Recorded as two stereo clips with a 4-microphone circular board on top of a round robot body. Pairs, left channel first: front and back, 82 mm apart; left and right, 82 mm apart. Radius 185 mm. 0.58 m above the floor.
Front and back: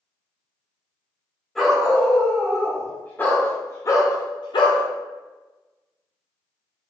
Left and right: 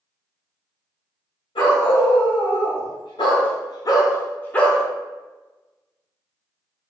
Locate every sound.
1.6 s a dog barking: 90° left, 1.7 m; by 4.8 s 5° left, 0.6 m